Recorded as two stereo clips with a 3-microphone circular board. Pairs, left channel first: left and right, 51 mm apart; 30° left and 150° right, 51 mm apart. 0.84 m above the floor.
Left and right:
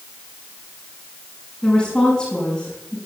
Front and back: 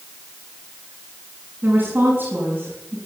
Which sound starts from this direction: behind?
A woman speaking, at 1.6 s.